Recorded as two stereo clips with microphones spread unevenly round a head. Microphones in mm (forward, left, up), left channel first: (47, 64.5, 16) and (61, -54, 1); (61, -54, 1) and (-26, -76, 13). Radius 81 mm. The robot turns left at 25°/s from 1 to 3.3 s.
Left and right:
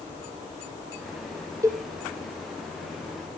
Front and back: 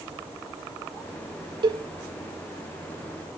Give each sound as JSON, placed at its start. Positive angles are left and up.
{"t": 1.6, "sound": "a cowbell", "azimuth_deg": -155, "distance_m": 1.7}